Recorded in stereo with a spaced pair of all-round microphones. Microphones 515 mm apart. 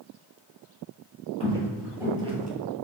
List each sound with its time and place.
1.4 s footsteps: 10° left (ahead or behind), 1.3 m; by 2.5 s 15° right (ahead or behind), 1.4 m